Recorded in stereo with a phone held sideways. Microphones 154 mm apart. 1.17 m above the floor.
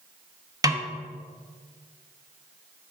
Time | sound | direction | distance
0.6 | a snare drum | 25° right (ahead or behind) | 1.0 m